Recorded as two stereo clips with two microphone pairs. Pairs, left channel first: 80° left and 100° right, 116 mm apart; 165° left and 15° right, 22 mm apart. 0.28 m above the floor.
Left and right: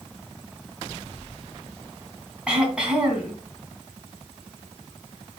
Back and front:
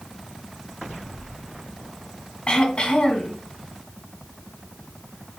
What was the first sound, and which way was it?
Throat clearing, straight behind.